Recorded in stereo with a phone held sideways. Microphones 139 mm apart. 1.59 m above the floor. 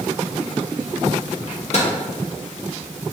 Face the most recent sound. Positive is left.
turn(degrees=50)  # may be behind; listen again after turning